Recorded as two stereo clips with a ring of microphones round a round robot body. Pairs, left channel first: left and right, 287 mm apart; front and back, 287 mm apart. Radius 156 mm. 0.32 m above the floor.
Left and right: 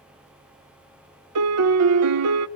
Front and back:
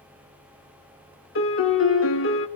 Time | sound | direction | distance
1.4 | a piano | 55° right | 0.8 m